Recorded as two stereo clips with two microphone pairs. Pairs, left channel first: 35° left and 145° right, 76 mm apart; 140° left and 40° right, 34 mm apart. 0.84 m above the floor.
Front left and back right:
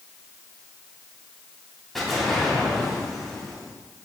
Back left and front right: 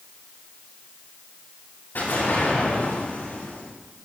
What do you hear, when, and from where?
1.9 s an explosion: 120° left, 6.5 m